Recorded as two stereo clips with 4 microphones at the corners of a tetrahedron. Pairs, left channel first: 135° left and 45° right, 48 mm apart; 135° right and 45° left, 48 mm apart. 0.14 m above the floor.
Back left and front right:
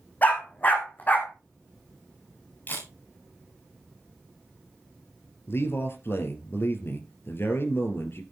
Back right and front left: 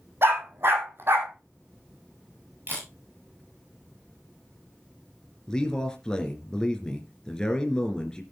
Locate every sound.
0.2 s a dog barking: 85° left, 2.5 m
2.7 s a camera shutter: 85° left, 7.5 m
5.5 s a man speaking: 150° left, 2.5 m